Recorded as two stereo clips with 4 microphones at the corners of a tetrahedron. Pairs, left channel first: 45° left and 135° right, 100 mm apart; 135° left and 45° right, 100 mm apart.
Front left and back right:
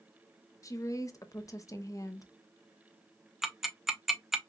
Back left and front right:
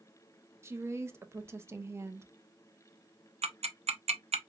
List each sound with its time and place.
0.6 s a woman speaking: straight ahead, 0.5 m
3.4 s ticking: 50° right, 0.5 m